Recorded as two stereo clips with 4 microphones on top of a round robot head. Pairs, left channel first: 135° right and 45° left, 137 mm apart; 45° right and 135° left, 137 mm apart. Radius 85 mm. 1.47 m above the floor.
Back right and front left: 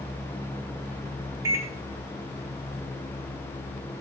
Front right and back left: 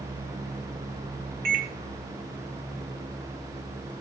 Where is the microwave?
115° left, 1.1 m.